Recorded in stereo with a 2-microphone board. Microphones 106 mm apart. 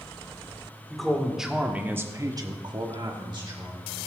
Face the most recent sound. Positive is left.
turn(degrees=-40)  # may be behind; listen again after turning